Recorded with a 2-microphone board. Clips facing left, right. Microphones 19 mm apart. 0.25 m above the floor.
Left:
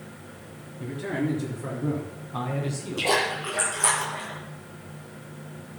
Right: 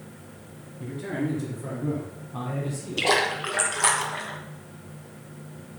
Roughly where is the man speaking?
Centre.